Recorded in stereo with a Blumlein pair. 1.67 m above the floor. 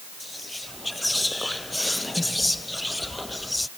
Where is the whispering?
5° left.